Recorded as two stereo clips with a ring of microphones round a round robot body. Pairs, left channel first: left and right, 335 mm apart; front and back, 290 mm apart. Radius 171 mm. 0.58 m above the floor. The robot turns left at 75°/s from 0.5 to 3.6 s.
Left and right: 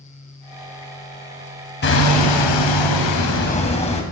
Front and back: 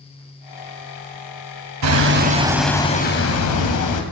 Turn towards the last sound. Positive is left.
turn(degrees=20)